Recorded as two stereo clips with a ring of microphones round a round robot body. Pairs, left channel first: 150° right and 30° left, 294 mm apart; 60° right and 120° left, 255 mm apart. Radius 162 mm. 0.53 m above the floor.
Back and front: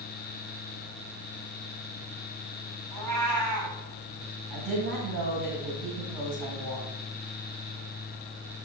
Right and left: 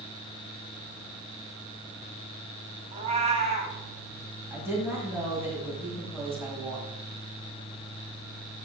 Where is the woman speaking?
40° left, 4.5 m.